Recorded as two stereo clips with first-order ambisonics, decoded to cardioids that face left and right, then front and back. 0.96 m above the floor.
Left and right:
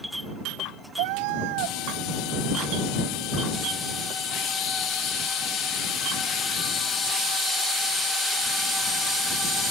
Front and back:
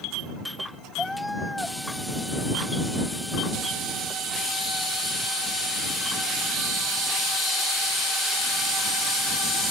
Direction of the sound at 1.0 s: 85° right.